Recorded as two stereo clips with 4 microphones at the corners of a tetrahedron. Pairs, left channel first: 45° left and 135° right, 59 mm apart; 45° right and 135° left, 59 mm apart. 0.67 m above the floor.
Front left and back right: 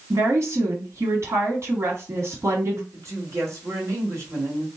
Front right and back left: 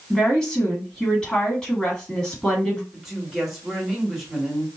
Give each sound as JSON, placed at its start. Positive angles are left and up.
{"t": 0.1, "sound": "a woman speaking", "azimuth_deg": -120, "distance_m": 1.6}
{"t": 2.9, "sound": "a woman speaking", "azimuth_deg": -140, "distance_m": 1.7}